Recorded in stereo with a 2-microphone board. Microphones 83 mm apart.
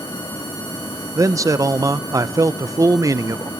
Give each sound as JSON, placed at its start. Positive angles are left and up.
{"t": 1.1, "sound": "a man speaking", "side_deg": -40, "distance_m": 0.6}